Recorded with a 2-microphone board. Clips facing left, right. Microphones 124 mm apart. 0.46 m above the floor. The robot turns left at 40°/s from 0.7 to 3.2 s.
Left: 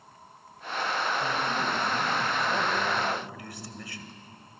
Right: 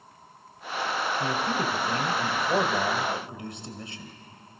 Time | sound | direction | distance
1.2 | a man speaking | 70° right | 2.5 m